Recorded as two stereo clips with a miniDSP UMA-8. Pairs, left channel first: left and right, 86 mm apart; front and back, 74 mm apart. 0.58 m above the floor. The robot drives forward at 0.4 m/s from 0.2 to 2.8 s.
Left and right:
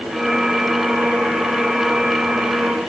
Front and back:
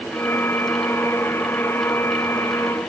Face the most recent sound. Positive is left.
No sound to turn to.